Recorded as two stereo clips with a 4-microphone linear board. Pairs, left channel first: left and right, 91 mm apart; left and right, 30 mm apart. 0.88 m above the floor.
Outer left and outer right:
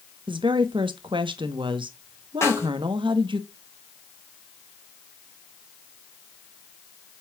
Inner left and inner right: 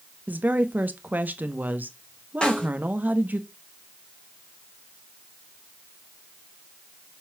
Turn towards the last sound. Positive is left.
turn(degrees=30)  # may be behind; listen again after turning